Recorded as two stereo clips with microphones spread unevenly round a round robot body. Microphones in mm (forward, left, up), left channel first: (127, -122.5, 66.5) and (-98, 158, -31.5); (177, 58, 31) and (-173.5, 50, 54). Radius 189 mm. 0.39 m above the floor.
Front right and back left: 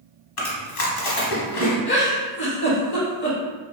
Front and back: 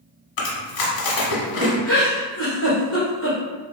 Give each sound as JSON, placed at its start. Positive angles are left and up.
{"t": 0.4, "sound": "chewing", "azimuth_deg": -5, "distance_m": 1.0}
{"t": 1.9, "sound": "a giggle", "azimuth_deg": 10, "distance_m": 1.6}